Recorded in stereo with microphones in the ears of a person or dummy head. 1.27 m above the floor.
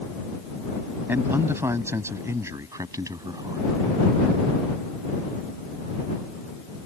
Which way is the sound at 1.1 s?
15° right (ahead or behind).